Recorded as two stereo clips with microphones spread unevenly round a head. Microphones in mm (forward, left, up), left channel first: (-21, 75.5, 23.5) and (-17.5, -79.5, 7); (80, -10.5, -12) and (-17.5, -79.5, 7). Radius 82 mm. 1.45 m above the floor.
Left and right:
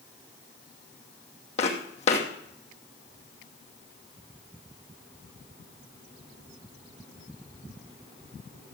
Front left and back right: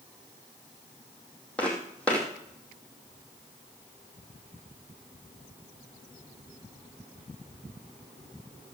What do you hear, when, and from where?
1.6 s footsteps: 125° left, 2.5 m